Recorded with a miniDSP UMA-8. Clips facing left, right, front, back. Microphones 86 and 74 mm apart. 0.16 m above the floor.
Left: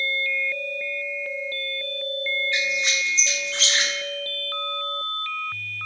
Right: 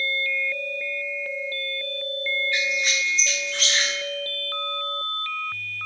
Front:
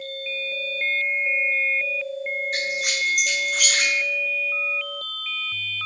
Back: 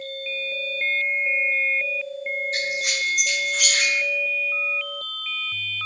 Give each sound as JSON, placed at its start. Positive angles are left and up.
{"t": 2.5, "sound": "a squeak", "azimuth_deg": 20, "distance_m": 0.6}